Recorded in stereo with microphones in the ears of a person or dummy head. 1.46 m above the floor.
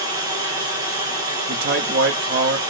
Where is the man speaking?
50° right (ahead or behind), 0.6 m.